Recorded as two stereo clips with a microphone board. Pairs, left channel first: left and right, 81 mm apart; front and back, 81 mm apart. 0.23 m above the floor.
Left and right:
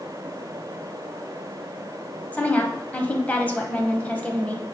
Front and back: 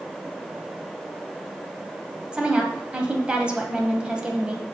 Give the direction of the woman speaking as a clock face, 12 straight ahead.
8 o'clock.